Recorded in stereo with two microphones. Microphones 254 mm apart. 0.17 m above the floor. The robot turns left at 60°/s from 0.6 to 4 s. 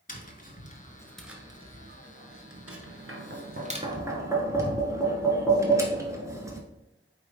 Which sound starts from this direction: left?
Tapping, at 0.1 s.